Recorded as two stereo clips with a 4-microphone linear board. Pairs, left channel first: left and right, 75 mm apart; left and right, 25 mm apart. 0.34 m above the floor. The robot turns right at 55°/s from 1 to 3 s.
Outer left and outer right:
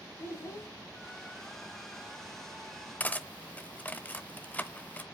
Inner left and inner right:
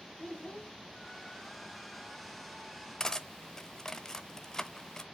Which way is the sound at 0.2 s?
35° left (ahead or behind).